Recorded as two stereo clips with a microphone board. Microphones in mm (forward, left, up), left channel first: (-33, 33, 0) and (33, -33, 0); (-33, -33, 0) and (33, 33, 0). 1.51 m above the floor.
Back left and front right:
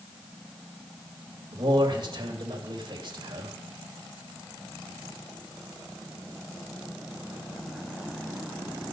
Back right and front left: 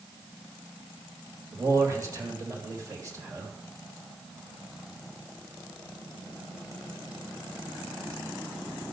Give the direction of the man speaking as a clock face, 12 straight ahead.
12 o'clock.